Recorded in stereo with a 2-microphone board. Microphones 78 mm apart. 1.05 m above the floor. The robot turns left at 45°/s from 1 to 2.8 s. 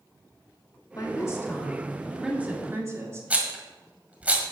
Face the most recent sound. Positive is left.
turn(degrees=-15)  # may be behind; listen again after turning